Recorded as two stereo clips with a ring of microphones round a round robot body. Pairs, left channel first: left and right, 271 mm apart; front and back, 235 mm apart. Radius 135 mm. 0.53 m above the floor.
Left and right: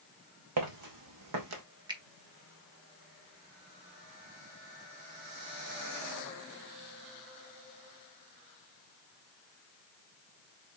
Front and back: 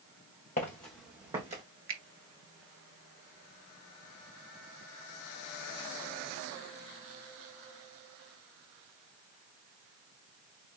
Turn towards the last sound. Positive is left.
turn(degrees=-160)